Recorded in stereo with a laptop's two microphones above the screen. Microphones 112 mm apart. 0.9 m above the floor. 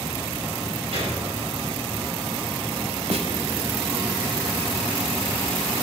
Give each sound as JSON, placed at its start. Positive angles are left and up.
{"t": 0.9, "sound": "a gunshot", "side_deg": -65, "distance_m": 5.5}
{"t": 3.1, "sound": "a snare drum", "side_deg": -65, "distance_m": 1.4}